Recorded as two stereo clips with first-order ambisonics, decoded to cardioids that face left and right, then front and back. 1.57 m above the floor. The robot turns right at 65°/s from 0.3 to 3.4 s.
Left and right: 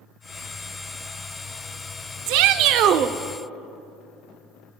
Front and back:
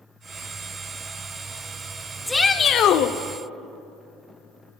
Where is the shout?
85° right, 0.5 m; by 3.1 s 30° right, 0.5 m.